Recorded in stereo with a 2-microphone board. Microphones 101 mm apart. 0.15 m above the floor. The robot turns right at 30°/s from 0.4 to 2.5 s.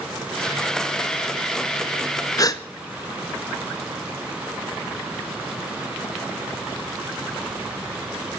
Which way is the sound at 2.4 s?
35° left (ahead or behind).